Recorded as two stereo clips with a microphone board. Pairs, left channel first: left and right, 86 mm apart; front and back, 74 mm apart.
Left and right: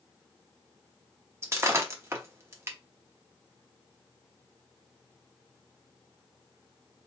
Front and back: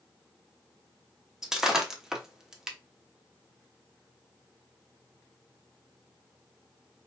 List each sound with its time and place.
1.4 s breaking glass: 105° right, 0.7 m